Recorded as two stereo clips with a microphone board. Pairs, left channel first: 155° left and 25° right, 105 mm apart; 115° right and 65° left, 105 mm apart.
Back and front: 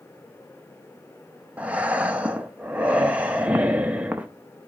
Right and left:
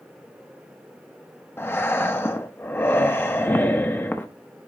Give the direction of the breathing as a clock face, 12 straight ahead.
3 o'clock.